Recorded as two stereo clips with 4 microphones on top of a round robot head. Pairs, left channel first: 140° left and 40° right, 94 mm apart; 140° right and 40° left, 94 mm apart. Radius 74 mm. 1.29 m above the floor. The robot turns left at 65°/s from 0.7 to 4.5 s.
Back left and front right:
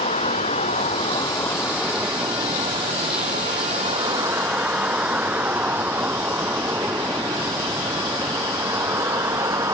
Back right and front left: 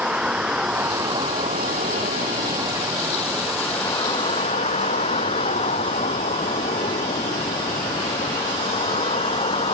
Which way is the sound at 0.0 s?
120° left.